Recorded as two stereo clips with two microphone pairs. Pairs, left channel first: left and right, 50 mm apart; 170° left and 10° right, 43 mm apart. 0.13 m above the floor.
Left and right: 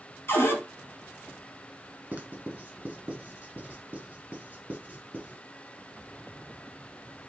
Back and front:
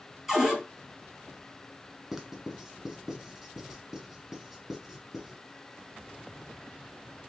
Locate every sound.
0.3 s a cupboard door: 70° left, 1.8 m
2.1 s writing: 75° right, 1.3 m